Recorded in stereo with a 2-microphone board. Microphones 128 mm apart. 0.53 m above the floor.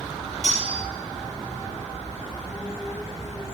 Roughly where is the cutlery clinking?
Right.